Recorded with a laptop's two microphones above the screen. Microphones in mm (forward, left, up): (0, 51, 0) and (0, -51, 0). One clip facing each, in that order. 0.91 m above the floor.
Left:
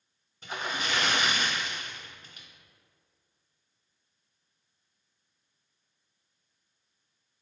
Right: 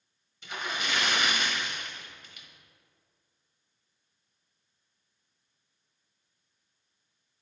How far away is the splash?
About 0.9 m.